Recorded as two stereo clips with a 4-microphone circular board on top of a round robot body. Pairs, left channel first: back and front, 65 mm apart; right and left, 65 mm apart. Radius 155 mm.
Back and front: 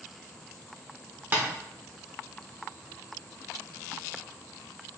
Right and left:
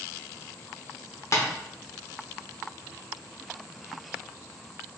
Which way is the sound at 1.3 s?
55° right.